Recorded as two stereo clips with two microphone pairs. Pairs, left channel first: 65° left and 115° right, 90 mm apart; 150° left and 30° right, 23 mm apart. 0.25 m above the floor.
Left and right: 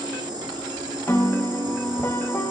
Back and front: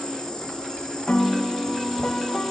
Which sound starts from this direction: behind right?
An insect, at 0.0 s.